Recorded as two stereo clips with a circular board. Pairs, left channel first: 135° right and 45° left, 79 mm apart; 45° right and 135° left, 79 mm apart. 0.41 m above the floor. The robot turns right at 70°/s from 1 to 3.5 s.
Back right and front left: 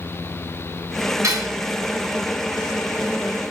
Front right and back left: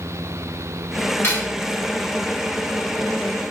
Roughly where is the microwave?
I don't hear a microwave.